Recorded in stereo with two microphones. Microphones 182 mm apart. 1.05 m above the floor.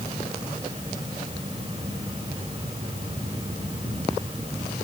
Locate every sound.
Only background noise.